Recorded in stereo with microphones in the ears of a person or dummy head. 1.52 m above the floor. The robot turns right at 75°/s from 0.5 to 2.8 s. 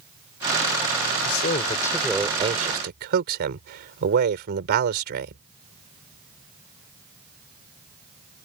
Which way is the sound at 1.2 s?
120° left.